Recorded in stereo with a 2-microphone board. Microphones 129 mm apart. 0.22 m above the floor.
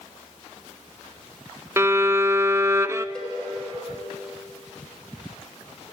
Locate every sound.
1.8 s a violin: 20° right (ahead or behind), 0.5 m
3.1 s a cowbell: 10° left (ahead or behind), 4 m